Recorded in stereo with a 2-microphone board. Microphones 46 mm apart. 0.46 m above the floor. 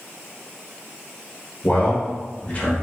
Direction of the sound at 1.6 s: 35° left (ahead or behind).